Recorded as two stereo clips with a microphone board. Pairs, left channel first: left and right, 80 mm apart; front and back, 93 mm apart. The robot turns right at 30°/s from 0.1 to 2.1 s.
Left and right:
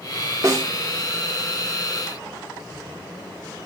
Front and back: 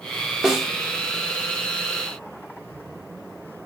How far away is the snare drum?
About 0.6 m.